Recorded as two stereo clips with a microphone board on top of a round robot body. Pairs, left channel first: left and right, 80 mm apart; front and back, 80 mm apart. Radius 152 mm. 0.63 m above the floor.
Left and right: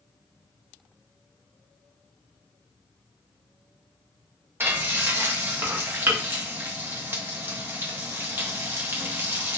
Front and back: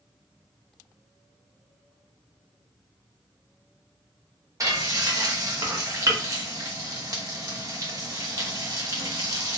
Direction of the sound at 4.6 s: 145° right.